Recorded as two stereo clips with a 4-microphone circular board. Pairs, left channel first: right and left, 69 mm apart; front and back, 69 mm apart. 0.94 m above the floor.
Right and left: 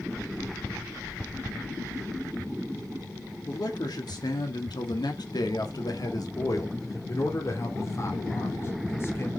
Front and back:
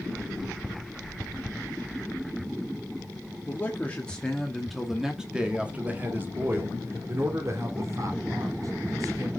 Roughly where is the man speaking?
Ahead right.